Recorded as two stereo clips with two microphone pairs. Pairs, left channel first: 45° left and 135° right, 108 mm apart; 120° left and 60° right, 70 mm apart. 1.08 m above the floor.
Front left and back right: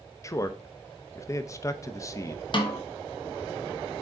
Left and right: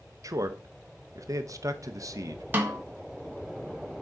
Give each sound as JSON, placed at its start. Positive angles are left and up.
{"t": 0.2, "sound": "a man speaking", "azimuth_deg": -20, "distance_m": 0.6}
{"t": 2.5, "sound": "a snare drum", "azimuth_deg": 5, "distance_m": 1.1}